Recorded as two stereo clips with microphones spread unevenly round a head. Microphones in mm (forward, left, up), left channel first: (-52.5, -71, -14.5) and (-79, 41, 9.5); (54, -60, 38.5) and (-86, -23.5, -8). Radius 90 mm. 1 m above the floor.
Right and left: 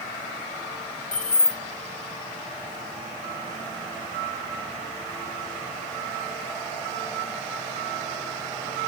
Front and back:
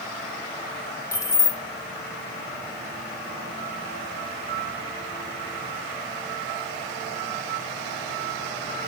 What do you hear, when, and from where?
1.1 s keys jangling: 80° right, 1.0 m